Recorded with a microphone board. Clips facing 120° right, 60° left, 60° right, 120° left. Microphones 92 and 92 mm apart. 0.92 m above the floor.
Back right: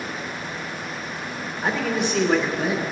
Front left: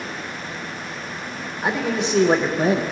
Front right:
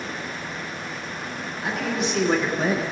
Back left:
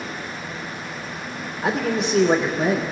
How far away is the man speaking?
About 1.2 m.